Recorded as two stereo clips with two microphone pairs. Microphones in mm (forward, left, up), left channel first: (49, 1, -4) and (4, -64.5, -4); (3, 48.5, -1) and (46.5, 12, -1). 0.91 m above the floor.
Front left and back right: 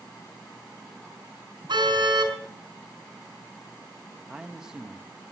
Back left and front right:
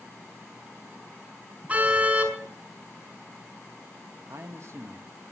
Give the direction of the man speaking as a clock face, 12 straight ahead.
2 o'clock.